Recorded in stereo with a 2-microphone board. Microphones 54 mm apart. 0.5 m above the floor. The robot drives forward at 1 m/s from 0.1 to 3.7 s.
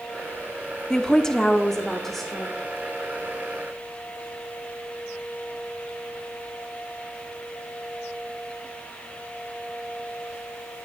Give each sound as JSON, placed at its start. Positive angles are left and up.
{"t": 0.9, "sound": "a woman speaking", "side_deg": 10, "distance_m": 0.7}